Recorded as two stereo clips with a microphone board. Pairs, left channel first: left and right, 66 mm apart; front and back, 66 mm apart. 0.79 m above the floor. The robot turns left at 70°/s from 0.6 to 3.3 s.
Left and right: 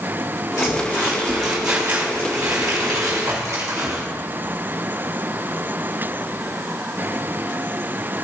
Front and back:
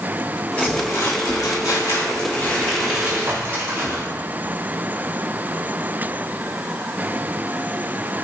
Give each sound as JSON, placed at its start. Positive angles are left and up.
{"t": 0.6, "sound": "crumpling", "azimuth_deg": 65, "distance_m": 3.0}